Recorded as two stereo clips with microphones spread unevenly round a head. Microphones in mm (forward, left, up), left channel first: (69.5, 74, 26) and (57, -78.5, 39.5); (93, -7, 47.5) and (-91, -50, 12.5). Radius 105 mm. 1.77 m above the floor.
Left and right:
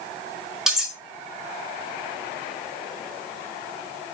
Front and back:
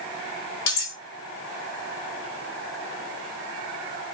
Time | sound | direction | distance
0.7 | cutlery clinking | 10° right | 2.5 m